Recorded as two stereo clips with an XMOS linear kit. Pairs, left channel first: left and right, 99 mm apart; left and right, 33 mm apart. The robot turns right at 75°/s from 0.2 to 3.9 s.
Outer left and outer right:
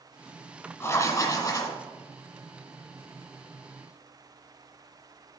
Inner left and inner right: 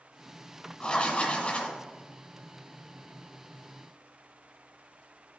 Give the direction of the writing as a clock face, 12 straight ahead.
10 o'clock.